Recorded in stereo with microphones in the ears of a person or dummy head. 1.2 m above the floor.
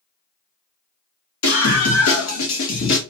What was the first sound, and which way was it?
A scream, 70° left (ahead or behind).